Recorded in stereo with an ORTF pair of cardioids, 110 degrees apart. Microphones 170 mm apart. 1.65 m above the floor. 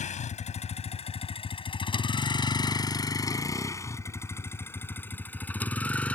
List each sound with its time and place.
0.0 s a vehicle: 45° left; by 6.2 s 5° left